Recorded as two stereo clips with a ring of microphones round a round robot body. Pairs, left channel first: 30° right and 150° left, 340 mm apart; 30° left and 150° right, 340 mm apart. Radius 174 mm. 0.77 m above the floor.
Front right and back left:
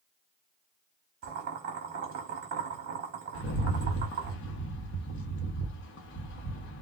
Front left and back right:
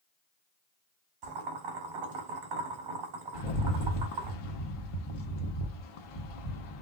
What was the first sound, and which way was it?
Boiling, 165° right.